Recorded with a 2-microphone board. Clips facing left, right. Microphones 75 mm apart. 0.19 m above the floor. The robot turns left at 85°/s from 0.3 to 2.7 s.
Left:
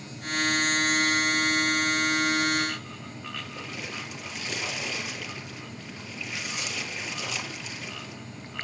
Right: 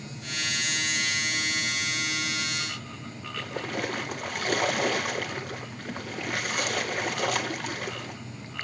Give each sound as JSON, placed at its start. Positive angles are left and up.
{"t": 3.4, "sound": "a splash", "side_deg": -55, "distance_m": 1.2}